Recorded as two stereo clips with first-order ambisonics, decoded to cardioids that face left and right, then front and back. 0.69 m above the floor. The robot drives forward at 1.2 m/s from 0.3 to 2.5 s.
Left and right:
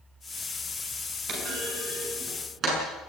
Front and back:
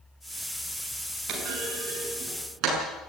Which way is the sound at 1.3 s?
140° right.